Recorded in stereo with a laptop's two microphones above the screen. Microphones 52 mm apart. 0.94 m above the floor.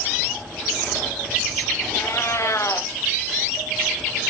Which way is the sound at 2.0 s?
65° left (ahead or behind).